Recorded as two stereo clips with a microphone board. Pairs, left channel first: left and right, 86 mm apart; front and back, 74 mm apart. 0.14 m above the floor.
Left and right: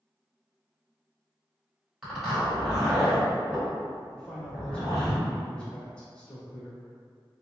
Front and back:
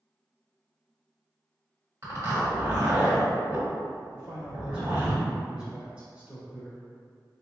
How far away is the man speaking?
About 1.0 m.